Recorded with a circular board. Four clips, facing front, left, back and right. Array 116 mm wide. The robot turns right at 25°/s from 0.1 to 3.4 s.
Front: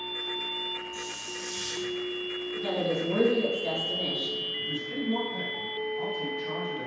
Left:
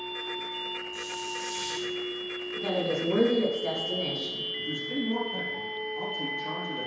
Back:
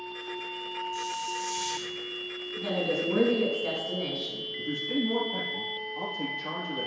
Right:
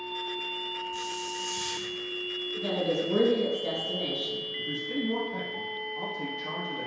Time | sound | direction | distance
0.9 | a hiss | 70° right | 2.0 m
2.6 | a woman speaking | 110° left | 1.7 m
4.6 | a man speaking | 160° left | 3.5 m